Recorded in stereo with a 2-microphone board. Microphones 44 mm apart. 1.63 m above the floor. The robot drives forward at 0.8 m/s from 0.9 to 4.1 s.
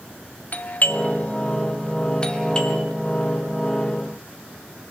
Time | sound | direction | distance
0.5 | a doorbell | 45° left (ahead or behind) | 1.1 m